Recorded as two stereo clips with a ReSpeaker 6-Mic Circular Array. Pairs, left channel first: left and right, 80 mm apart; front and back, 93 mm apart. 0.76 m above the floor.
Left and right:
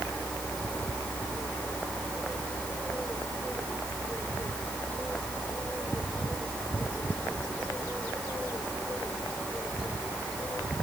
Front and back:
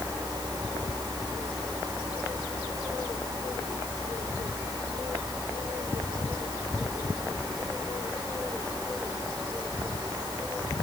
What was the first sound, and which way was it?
Only background noise.